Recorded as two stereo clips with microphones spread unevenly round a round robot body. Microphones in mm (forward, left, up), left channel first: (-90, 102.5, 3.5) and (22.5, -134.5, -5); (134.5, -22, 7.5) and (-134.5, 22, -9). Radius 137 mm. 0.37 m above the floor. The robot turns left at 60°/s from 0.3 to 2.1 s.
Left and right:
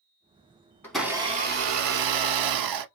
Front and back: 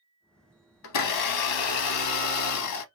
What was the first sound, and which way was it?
A blender, 35° left.